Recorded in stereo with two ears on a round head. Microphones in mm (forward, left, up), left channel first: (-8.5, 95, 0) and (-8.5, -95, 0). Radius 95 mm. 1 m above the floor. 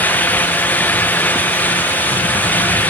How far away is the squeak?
I don't hear a squeak.